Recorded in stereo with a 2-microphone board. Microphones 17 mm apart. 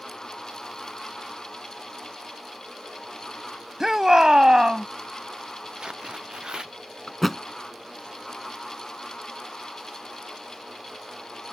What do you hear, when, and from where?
3.8 s a shout: 35° right (ahead or behind); by 4.9 s 50° right (ahead or behind)
5.8 s tearing paper: 55° right (ahead or behind)
7.1 s a thud: 15° left (ahead or behind)